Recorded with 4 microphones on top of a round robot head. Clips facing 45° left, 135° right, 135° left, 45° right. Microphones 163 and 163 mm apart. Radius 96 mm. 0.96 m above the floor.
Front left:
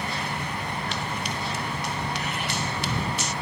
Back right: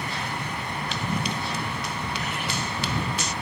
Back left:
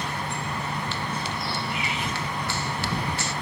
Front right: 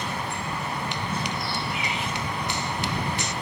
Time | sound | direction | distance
0.9 | running footsteps | 120° right | ?